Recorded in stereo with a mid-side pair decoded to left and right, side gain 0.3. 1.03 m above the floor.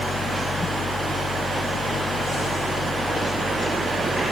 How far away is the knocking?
No knocking in this recording.